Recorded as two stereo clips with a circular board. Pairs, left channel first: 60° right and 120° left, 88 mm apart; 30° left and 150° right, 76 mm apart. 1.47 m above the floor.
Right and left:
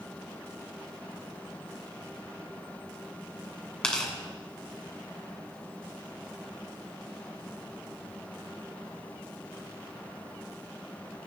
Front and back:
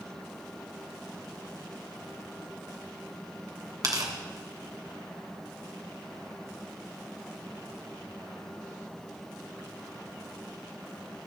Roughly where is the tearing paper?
Behind right.